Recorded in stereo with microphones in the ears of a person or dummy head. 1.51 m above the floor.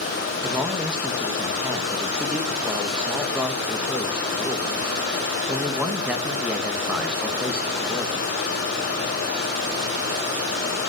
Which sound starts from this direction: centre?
A man speaking, at 0.4 s.